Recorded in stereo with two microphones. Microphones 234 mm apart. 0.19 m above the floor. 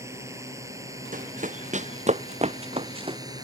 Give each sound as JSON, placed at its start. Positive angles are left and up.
{"t": 0.0, "sound": "a drone", "side_deg": -15}
{"t": 1.1, "sound": "running footsteps", "side_deg": -35}